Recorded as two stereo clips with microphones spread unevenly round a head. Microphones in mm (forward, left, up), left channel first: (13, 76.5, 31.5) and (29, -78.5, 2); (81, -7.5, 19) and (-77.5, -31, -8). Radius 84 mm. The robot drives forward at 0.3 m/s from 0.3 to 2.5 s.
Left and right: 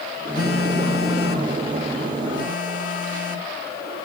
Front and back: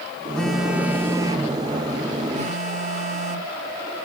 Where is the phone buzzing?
90° left, 0.7 m; by 3.5 s 135° left, 0.9 m.